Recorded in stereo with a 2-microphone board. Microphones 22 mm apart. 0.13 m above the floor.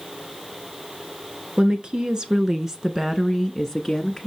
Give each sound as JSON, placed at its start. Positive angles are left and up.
{"t": 1.6, "sound": "a woman speaking", "side_deg": -45, "distance_m": 1.5}